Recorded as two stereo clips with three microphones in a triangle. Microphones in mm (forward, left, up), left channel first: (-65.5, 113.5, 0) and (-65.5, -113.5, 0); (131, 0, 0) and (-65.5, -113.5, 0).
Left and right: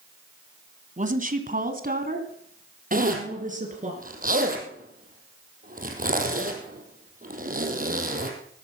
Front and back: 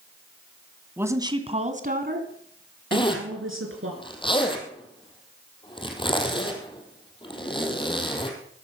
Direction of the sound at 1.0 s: 75° right.